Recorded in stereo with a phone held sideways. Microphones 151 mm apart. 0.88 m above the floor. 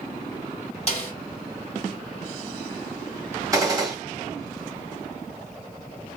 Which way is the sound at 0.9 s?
45° left (ahead or behind).